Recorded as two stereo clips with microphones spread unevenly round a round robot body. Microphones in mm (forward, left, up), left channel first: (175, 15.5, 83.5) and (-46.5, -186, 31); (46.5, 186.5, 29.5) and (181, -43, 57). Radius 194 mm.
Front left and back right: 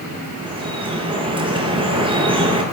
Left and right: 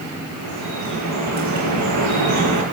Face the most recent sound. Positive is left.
turn(degrees=-65)